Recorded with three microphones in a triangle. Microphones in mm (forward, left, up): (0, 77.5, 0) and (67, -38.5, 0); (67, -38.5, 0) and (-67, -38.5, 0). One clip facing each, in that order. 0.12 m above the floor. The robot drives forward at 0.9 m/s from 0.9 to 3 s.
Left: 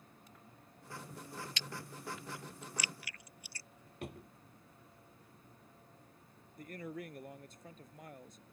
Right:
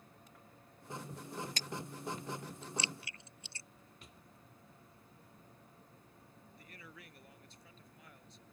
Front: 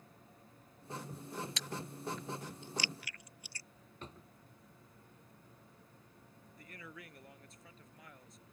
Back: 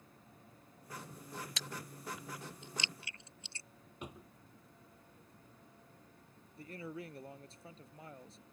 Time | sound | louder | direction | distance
1.6 | chewing | right 3 dB, front 3 dB | 90° right | ?
4.0 | a drawer | left 18 dB, back 3 dB | 105° left | ?
6.6 | a man speaking | left 13 dB, back 8 dB | 135° left | ?